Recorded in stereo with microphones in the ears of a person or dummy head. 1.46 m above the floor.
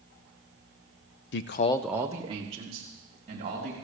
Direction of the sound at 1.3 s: 60° left (ahead or behind).